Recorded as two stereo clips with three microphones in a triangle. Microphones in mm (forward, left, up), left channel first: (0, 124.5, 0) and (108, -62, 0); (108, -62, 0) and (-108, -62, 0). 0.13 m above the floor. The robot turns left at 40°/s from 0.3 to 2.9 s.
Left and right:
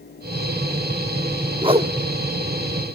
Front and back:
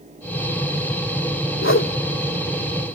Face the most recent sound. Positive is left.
turn(degrees=-45)